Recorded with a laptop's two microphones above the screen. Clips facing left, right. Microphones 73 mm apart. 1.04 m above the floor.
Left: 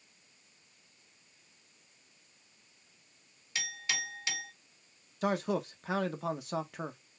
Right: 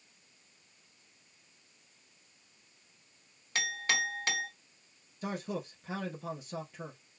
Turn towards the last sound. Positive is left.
turn(degrees=80)